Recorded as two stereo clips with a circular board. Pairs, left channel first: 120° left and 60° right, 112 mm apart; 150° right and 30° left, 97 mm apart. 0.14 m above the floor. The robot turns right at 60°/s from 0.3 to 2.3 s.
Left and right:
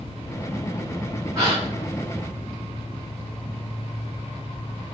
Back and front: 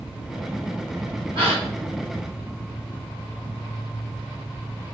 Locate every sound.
1.4 s a gasp: 5° left, 2 m; by 1.6 s 20° left, 2 m